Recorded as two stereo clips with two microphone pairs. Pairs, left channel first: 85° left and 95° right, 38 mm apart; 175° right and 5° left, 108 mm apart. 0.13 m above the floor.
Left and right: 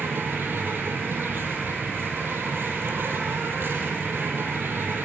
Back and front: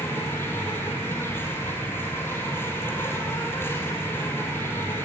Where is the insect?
105° right, 4.5 m.